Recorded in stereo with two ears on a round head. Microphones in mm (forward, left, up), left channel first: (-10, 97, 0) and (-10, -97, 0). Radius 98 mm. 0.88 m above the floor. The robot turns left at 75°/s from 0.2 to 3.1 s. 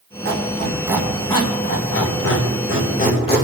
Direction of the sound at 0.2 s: 60° right (ahead or behind).